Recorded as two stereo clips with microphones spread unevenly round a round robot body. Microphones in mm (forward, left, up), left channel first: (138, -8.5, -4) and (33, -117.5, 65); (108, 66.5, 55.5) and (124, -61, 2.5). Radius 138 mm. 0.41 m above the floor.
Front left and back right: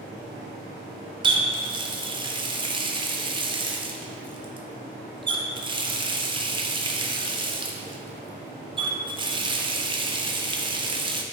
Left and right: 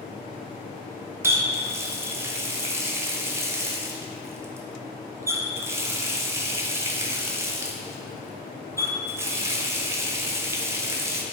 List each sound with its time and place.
1.2 s a running tap: 55° right, 0.5 m